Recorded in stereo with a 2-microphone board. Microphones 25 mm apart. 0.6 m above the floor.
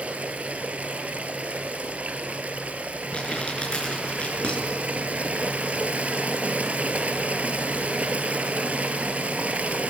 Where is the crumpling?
40° left (ahead or behind), 7.5 m.